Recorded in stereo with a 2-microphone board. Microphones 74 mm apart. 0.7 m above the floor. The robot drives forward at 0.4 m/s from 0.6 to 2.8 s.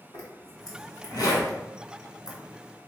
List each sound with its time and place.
0.1 s a zipper: 60° left (ahead or behind), 1.7 m; by 2.4 s 80° left, 1.5 m